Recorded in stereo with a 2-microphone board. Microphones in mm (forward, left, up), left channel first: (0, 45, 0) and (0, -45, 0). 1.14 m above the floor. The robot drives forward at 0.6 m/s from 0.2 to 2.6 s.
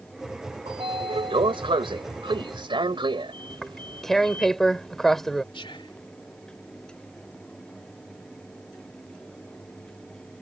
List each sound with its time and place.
0.7 s a sliding door: 85° right; by 4.5 s 65° right (ahead or behind)
3.5 s tearing paper: 5° left (ahead or behind)
5.5 s whispering: 70° left (ahead or behind)